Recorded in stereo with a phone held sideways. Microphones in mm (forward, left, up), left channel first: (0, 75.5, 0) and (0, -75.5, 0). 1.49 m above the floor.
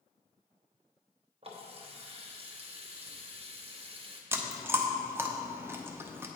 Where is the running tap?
40° right (ahead or behind), 0.7 m.